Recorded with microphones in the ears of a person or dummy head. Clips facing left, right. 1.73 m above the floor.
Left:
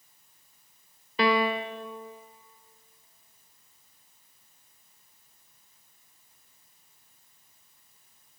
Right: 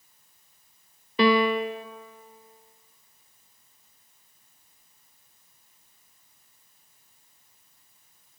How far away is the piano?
About 0.5 m.